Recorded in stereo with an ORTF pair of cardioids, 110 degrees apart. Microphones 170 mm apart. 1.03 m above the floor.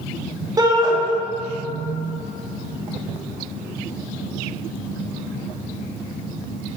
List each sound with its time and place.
0.6 s a shout: 25° right, 2 m